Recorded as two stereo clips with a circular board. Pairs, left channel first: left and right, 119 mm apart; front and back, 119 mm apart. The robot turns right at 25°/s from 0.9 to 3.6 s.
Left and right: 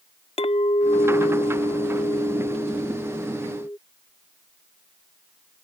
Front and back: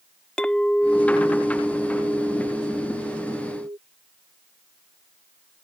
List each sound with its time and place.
0.4 s a clink: 80° left; by 3.8 s 150° left